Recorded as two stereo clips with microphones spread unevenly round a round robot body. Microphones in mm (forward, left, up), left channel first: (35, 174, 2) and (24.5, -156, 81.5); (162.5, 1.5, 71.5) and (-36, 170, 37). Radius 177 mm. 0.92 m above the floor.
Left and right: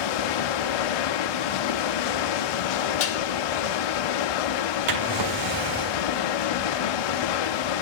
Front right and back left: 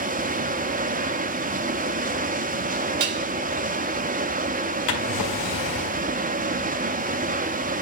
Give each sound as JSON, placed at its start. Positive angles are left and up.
{"t": 0.0, "sound": "running water", "azimuth_deg": 75, "distance_m": 0.8}
{"t": 3.0, "sound": "dishes clattering", "azimuth_deg": 140, "distance_m": 0.8}
{"t": 4.9, "sound": "a drawer", "azimuth_deg": -65, "distance_m": 1.8}